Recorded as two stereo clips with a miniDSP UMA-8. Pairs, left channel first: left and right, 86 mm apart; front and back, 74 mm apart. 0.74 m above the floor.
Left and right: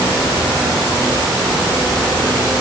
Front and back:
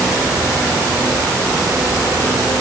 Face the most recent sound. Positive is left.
No sound to turn to.